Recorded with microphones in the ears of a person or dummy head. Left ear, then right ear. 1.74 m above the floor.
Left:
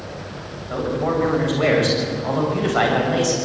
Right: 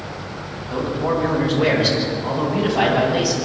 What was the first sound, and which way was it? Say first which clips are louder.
A man speaking: even; 35° left (ahead or behind).